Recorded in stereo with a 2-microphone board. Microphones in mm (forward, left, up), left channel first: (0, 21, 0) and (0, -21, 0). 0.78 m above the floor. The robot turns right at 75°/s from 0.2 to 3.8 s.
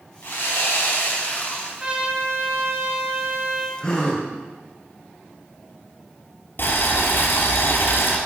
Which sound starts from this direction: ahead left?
Sawing, at 0.2 s.